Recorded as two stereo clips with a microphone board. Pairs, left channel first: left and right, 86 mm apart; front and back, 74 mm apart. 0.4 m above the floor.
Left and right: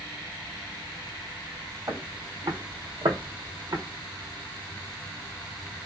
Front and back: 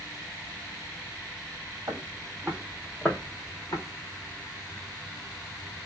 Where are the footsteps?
140° right, 1.2 m; by 3.8 s 35° right, 1.1 m.